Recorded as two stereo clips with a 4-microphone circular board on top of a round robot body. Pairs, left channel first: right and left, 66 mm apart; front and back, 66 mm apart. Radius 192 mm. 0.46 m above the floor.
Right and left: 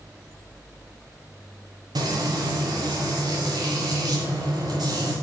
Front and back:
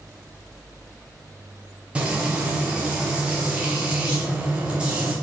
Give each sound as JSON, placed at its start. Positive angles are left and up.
{"t": 1.9, "sound": "frying", "azimuth_deg": 105, "distance_m": 1.3}